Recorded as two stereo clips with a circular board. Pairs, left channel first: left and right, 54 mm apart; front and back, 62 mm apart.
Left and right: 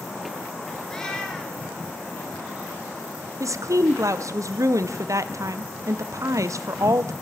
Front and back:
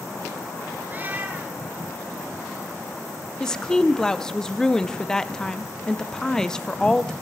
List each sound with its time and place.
0.9 s a cat meowing: 155° left, 1.4 m
3.4 s a woman speaking: 80° right, 0.5 m